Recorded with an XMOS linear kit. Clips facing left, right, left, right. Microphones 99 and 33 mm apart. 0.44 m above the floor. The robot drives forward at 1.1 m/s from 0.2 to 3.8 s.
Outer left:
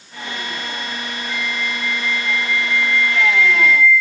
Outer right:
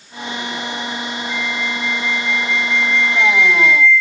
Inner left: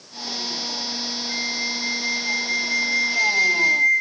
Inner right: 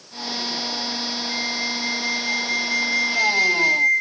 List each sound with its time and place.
1.3 s a flute: 5° left (ahead or behind)